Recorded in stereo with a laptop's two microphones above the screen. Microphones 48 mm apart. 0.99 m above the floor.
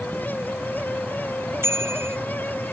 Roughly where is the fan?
Left.